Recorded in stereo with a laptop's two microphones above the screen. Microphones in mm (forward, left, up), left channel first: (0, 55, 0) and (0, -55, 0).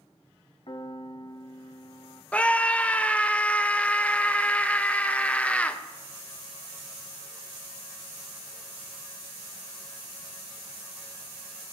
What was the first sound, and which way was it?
A piano, 55° left (ahead or behind).